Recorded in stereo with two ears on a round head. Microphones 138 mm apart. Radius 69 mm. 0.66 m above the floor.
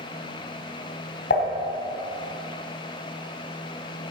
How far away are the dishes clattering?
About 2.5 m.